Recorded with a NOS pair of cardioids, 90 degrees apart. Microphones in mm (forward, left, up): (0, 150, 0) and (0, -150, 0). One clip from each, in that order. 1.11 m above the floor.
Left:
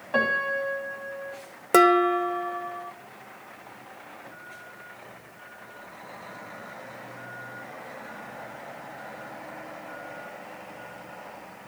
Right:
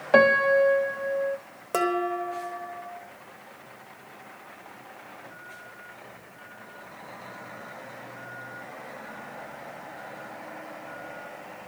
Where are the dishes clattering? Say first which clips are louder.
Left 8 dB; 45° left, 0.9 m.